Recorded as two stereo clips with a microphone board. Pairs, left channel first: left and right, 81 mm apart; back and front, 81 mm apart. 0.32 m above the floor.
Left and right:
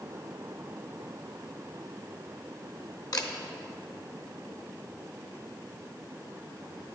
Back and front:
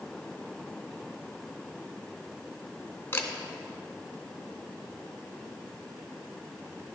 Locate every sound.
3.1 s a camera shutter: 120° left, 0.9 m